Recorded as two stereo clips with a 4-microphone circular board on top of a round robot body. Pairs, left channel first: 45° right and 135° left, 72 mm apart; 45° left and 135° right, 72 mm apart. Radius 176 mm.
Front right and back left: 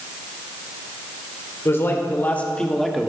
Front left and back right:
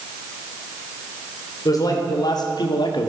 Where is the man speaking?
10° left, 3 m; by 3.1 s 50° left, 1.8 m.